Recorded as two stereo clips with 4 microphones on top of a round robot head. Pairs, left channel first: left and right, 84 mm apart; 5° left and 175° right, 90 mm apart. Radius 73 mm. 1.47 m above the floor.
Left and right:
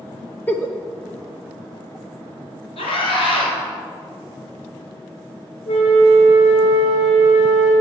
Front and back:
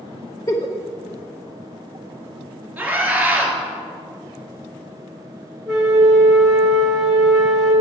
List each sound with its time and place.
0.5 s a giggle: 35° left, 0.6 m
2.8 s a scream: 110° left, 3.5 m
5.7 s a flute: 100° left, 2.5 m